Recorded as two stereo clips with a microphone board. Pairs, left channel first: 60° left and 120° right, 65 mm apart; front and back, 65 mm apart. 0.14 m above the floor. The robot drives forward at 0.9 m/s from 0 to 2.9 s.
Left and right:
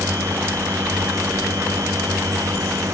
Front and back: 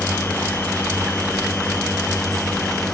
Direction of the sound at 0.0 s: 70° right.